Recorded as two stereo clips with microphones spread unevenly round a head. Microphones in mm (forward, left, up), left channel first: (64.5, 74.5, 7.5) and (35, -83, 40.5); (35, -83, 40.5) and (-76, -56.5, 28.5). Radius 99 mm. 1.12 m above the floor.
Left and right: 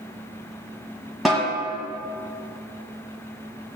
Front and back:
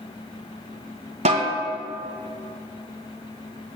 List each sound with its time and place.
1.2 s a snare drum: straight behind, 1.4 m